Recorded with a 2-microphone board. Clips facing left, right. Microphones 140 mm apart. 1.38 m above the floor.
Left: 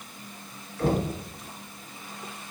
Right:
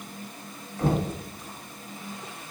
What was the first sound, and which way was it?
Knocking, 45° right (ahead or behind).